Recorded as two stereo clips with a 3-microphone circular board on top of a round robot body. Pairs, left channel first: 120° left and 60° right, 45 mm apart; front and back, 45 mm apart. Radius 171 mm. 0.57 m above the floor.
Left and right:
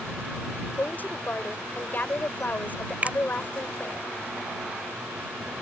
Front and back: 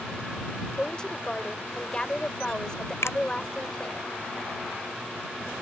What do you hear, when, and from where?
0.8 s a woman speaking: 70° left
3.0 s a finger snap: 5° right